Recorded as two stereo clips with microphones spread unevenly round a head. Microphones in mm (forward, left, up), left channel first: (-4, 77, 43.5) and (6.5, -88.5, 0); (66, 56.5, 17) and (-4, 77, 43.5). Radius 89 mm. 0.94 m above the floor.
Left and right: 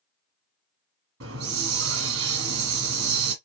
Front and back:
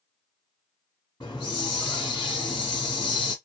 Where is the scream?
No scream in this recording.